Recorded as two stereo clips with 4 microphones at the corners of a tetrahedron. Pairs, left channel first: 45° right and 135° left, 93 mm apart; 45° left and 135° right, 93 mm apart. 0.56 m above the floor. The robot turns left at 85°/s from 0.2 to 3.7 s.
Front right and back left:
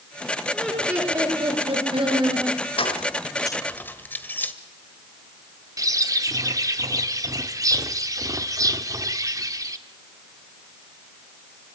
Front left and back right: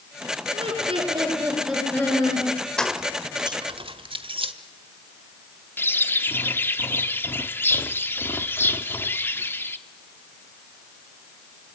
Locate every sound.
0.5 s laughter: 120° right, 9 m; by 2.5 s 70° left, 9 m
2.8 s keys jangling: 35° right, 1.3 m; by 4.5 s 115° right, 1.3 m
5.8 s a bird: 105° left, 1.1 m